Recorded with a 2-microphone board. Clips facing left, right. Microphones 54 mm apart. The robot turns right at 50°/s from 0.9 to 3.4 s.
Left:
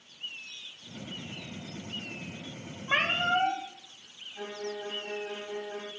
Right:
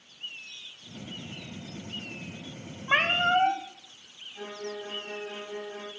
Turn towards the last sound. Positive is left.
turn(degrees=25)  # may be behind; listen again after turning